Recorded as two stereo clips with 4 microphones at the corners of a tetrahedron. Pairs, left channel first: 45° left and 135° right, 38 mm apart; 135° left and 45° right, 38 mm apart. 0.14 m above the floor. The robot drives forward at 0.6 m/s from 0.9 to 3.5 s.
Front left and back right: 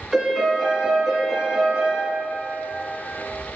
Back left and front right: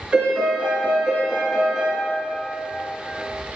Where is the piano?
55° right, 1.6 m; by 2.0 s 110° right, 1.6 m.